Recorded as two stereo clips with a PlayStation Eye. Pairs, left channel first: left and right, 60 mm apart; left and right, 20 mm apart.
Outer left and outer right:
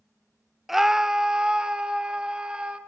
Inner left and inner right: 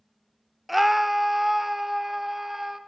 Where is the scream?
Centre (ahead or behind), 0.6 m; by 2.8 s 15° right (ahead or behind), 2.5 m.